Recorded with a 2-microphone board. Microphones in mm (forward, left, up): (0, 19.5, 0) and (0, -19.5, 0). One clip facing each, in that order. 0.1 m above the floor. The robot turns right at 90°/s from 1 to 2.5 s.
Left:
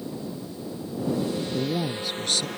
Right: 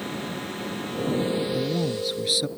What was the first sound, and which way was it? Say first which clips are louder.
A drone: right 3 dB; 60° right.